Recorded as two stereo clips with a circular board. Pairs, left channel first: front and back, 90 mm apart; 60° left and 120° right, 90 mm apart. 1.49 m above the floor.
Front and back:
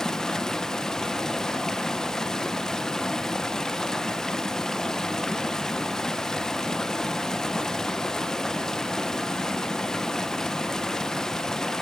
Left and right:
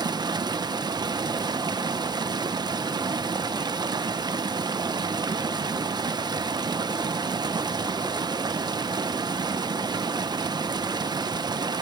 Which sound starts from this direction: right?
Running water, at 0.0 s.